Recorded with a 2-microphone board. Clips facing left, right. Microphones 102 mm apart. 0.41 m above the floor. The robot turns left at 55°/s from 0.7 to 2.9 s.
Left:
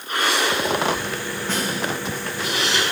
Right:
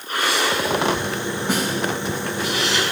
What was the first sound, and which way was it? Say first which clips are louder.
A snare drum: right 3 dB; 10° right (ahead or behind).